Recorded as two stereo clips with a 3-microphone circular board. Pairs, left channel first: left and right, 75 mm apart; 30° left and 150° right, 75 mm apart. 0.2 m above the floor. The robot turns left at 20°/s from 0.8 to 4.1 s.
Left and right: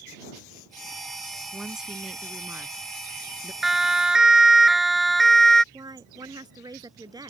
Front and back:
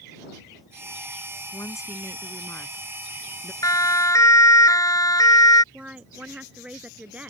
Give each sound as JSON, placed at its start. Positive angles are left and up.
{"t": 1.5, "sound": "a woman speaking", "azimuth_deg": -5}
{"t": 3.6, "sound": "a siren", "azimuth_deg": -5}
{"t": 5.7, "sound": "a woman speaking", "azimuth_deg": -80}